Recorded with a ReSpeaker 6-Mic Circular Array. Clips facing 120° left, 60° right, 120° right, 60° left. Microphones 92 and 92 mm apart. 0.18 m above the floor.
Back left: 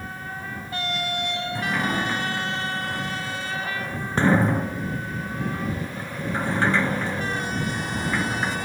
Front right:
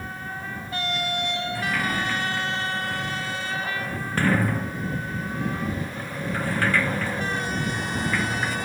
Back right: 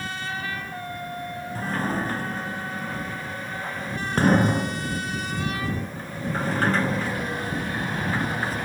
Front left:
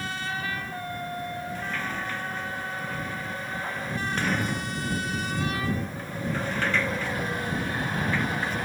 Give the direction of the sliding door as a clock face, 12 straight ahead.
6 o'clock.